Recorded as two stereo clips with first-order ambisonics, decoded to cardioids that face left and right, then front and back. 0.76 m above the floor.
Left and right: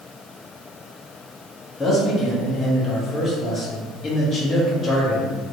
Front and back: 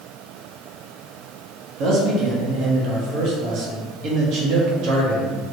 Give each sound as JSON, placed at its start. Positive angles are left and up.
{"t": 1.8, "sound": "a man speaking", "azimuth_deg": 160, "distance_m": 1.0}